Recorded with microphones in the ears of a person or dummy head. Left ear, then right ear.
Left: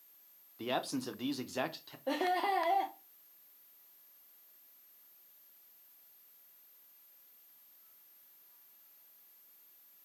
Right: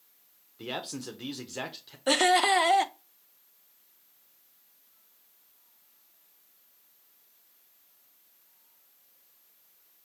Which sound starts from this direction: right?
Laughter, at 2.1 s.